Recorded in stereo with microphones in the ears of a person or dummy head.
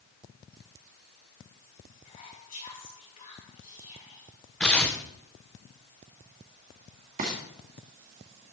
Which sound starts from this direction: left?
Whispering, at 2.0 s.